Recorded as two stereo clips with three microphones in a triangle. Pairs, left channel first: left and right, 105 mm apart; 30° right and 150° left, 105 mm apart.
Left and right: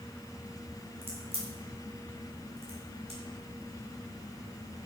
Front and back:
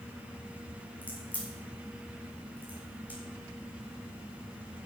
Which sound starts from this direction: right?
A crack, at 1.0 s.